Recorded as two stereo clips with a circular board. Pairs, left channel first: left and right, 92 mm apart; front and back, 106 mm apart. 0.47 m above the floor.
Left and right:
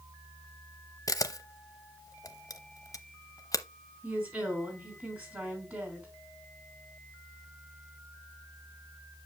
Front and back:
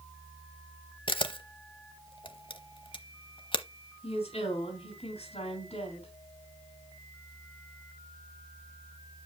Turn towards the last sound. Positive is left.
turn(degrees=-20)